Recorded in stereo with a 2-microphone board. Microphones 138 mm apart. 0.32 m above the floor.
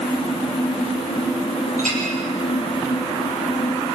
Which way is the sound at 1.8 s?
75° right (ahead or behind).